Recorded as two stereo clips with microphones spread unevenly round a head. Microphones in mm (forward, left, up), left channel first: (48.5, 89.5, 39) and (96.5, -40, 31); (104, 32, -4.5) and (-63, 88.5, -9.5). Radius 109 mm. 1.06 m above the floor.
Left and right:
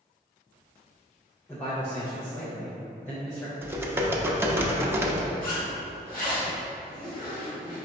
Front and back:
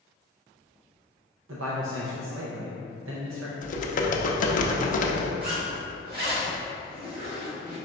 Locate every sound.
1.5 s a man speaking: 170° right, 0.5 m
3.6 s typing on a keyboard: straight ahead, 0.5 m
5.4 s a zipper: 135° left, 1.9 m